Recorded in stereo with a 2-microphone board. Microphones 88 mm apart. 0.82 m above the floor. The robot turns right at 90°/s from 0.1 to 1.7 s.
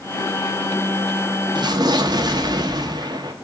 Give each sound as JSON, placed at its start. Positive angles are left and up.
{"t": 1.6, "sound": "an explosion", "side_deg": -60, "distance_m": 0.8}